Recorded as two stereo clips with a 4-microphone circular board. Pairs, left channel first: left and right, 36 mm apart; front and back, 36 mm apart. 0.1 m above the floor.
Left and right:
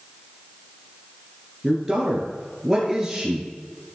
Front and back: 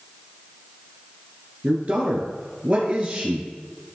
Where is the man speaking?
165° right, 1.4 m.